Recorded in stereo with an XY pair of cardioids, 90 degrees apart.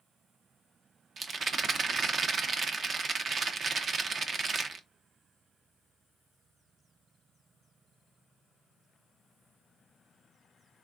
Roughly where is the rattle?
Ahead right.